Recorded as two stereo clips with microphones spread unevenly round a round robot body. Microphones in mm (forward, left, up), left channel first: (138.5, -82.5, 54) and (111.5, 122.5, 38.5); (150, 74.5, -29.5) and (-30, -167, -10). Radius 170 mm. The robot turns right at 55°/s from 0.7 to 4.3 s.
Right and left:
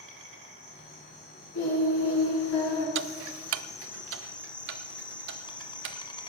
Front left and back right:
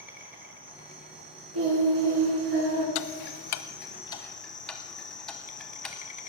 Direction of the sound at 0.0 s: 150° left.